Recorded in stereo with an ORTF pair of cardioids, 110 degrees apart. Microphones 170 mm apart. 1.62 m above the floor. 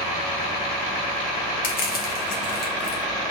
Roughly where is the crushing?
Ahead left.